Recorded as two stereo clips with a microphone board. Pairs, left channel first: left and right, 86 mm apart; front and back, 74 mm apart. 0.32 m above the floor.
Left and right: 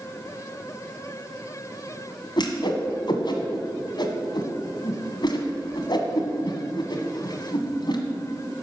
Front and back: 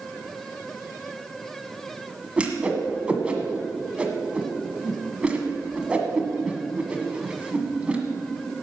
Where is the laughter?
No laughter in this recording.